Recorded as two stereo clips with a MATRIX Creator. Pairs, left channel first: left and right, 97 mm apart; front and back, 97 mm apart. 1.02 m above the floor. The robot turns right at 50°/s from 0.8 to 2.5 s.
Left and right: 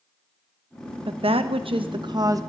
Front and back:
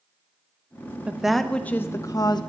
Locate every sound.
1.1 s a woman speaking: 105° right, 0.7 m; by 2.4 s 35° right, 0.7 m